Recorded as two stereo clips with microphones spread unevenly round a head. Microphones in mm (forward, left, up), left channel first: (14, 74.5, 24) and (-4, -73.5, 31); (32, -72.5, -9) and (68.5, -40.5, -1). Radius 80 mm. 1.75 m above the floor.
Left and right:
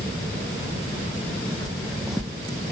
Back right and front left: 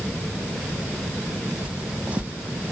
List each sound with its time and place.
1.6 s footsteps: 10° right